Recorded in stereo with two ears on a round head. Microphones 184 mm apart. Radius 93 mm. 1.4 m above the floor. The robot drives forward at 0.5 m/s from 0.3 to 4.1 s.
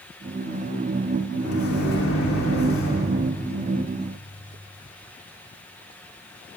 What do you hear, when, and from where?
1.4 s a microwave: 90° left, 4 m; by 3.1 s 75° left (ahead or behind), 4 m